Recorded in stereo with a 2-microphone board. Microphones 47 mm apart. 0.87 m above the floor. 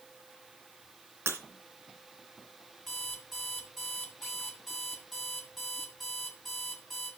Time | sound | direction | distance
1.3 | breaking glass | 70° right (ahead or behind) | 2.5 m
2.9 | an alarm clock | 5° left (ahead or behind) | 3 m